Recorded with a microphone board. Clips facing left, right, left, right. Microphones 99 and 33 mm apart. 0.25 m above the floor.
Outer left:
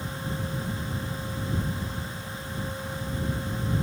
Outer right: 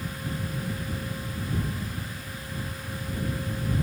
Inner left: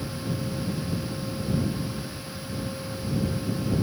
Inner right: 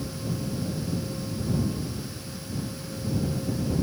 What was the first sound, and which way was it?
Only background noise.